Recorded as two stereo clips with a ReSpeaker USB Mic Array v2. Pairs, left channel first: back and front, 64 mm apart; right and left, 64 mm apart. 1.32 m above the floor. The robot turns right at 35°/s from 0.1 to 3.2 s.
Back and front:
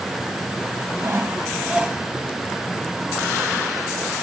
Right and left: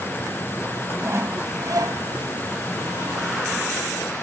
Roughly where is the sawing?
Ahead left.